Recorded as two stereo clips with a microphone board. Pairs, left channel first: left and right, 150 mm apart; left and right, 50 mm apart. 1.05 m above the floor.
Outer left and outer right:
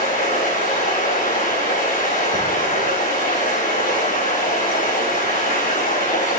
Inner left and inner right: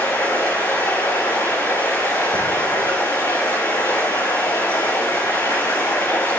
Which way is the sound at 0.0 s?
65° left (ahead or behind).